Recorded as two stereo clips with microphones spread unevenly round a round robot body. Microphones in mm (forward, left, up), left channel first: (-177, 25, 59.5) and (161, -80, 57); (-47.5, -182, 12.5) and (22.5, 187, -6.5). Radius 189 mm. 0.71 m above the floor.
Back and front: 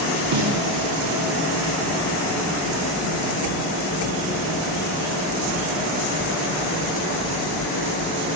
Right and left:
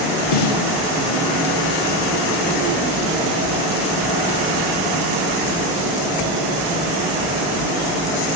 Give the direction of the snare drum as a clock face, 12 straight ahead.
2 o'clock.